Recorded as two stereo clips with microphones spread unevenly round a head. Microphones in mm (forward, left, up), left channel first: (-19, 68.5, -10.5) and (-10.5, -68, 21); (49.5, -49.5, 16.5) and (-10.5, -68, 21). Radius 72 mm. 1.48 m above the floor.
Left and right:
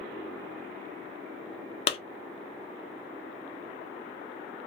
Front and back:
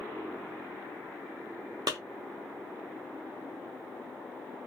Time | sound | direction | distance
1.9 | a clap | 145° left | 0.6 m